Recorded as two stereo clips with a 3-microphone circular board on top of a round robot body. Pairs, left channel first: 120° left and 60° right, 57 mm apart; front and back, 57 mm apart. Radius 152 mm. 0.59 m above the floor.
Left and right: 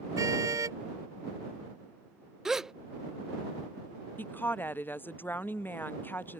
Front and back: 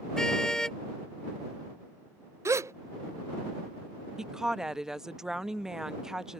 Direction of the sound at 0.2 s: 80° right.